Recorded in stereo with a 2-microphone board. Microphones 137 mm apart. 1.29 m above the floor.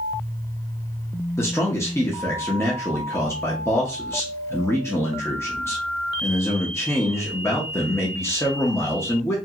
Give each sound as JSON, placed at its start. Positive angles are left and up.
{"t": 1.4, "sound": "a man speaking", "side_deg": 20, "distance_m": 0.7}